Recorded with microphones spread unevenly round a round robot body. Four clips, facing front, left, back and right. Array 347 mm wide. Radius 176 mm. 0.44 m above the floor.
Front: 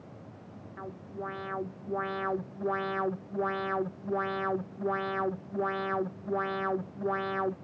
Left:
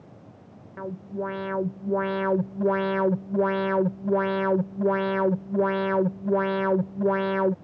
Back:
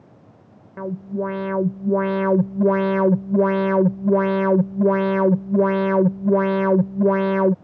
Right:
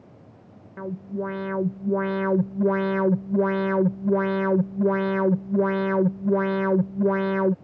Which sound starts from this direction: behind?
An alarm, at 0.8 s.